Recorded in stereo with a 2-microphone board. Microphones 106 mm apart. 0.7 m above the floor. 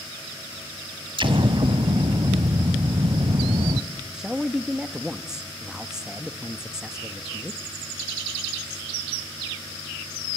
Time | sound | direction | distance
1.2 | an explosion | 55° right (ahead or behind) | 1.0 m
4.1 | a man speaking | 5° right (ahead or behind) | 0.9 m